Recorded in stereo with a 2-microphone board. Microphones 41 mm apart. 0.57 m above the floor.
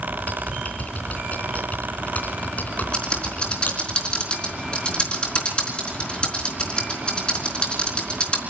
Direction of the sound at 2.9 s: 25° left (ahead or behind).